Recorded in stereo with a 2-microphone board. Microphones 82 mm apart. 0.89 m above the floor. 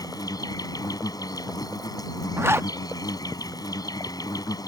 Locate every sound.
0.0 s an insect: 50° left (ahead or behind)
2.4 s a zipper: 30° right (ahead or behind)